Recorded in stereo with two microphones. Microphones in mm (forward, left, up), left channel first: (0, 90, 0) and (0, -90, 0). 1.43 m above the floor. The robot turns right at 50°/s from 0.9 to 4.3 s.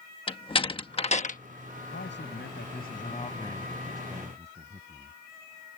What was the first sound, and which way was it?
A door slam, 30° left (ahead or behind).